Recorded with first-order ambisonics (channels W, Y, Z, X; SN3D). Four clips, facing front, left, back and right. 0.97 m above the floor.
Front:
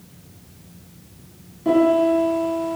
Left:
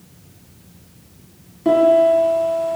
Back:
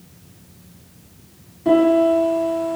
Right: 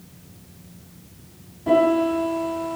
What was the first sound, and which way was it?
A piano, 95° left.